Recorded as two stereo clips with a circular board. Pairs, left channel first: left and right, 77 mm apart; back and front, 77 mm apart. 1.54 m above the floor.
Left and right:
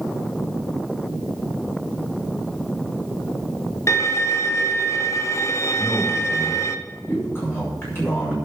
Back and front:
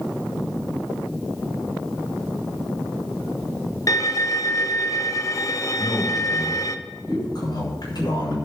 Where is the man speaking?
150° left, 7.5 m.